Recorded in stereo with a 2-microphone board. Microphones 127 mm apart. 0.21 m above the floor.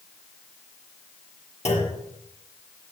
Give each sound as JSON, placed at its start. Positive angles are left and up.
{"t": 1.6, "sound": "a clunk", "side_deg": 60, "distance_m": 4.0}